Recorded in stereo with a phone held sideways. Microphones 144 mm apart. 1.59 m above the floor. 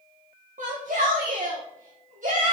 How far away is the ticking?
I don't hear ticking.